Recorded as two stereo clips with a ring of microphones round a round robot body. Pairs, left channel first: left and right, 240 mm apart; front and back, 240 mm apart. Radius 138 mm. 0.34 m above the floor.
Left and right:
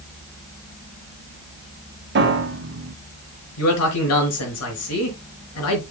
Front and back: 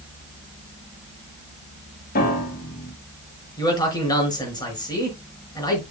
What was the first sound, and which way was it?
A piano, 50° right.